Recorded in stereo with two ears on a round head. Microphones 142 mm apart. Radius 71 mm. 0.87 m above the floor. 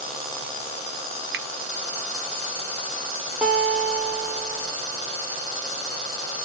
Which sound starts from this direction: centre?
A guitar, at 3.4 s.